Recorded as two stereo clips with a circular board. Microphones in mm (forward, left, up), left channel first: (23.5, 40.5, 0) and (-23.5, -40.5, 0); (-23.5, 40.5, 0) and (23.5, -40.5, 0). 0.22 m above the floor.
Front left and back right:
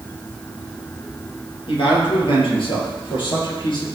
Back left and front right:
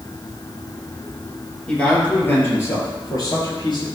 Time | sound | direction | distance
1.7 | a man speaking | 40° left | 4.5 m